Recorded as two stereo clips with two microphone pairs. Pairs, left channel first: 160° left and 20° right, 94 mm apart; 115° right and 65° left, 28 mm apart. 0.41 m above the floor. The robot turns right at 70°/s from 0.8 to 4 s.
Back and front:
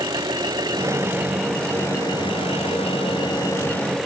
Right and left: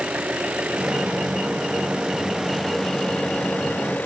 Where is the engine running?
25° left; by 4.1 s 110° right.